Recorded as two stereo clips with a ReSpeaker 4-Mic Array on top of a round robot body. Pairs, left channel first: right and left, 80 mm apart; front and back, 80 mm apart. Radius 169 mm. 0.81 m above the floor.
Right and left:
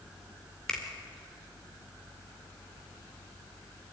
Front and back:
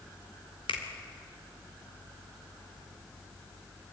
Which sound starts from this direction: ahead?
A finger snap, at 0.7 s.